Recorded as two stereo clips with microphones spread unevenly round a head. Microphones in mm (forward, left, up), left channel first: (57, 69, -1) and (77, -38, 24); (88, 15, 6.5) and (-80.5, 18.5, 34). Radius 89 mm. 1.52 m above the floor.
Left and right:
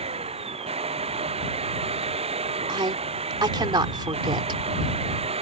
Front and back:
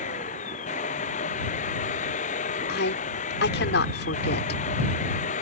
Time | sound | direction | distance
0.0 | a machine running | 55° right | ?
2.7 | a woman speaking | 35° right | ?